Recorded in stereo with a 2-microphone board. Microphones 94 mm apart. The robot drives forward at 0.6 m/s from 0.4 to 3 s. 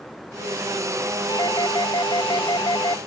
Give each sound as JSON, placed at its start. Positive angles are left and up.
{"t": 1.3, "sound": "a doorbell", "side_deg": 45}